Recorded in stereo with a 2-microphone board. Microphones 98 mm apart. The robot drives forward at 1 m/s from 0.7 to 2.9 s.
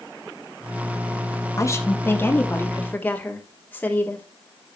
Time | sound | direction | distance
1.6 | a woman speaking | 35° left (ahead or behind) | 1.3 m